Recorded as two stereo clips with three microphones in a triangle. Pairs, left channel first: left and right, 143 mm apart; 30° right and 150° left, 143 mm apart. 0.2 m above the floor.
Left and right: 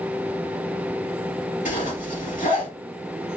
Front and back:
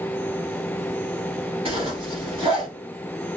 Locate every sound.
1.6 s a zipper: 105° left, 2 m